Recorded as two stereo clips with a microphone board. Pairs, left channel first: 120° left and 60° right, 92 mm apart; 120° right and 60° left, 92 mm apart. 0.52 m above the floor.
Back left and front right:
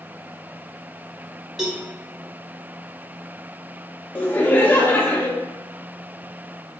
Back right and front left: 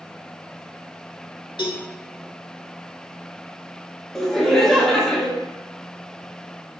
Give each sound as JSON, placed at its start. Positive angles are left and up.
{"t": 1.6, "sound": "a cowbell", "azimuth_deg": -145, "distance_m": 0.8}
{"t": 4.2, "sound": "laughter", "azimuth_deg": 160, "distance_m": 0.7}